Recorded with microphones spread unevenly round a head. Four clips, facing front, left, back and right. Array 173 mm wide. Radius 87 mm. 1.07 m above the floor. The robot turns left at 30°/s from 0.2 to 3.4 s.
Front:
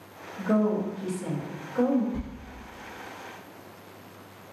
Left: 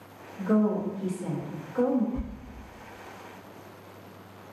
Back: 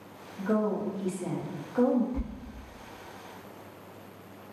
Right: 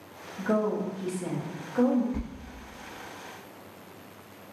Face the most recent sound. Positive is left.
turn(degrees=-115)